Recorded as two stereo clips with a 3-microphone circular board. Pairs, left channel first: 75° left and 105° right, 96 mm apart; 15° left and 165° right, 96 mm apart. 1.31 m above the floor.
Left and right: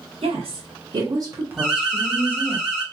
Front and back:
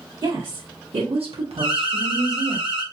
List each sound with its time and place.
0.2 s a woman speaking: 120° right, 1.3 m; by 2.6 s 140° left, 1.2 m
1.6 s an alarm: 165° left, 1.6 m